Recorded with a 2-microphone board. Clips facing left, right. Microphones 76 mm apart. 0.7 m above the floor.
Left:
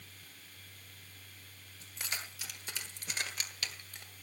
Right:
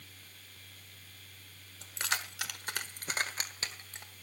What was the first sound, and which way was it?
Keys jangling, 85° right.